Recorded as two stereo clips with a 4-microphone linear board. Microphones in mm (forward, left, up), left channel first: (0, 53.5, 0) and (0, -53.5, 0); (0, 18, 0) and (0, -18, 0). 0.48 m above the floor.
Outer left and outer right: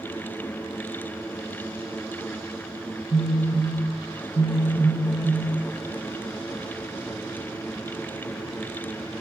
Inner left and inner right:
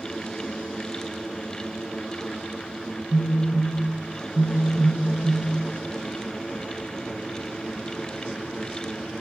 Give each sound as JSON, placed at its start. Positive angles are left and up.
{"t": 3.1, "sound": "a phone buzzing", "side_deg": 65, "distance_m": 1.7}